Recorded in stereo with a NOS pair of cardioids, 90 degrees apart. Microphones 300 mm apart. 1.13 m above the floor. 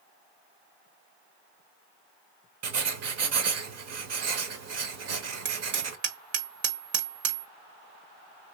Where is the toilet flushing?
I don't hear a toilet flushing.